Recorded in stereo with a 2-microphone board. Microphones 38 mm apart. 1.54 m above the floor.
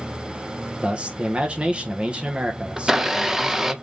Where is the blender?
10° right (ahead or behind), 0.7 m.